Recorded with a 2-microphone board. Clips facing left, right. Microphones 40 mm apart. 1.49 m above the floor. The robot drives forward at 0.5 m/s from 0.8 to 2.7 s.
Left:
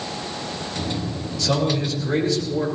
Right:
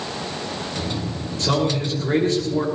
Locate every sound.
1.4 s a man speaking: 45° right (ahead or behind), 7 m; by 2.7 s 50° right (ahead or behind), 7 m